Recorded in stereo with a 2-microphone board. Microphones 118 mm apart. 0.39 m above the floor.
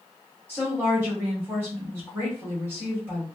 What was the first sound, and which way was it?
A woman speaking, 20° right (ahead or behind).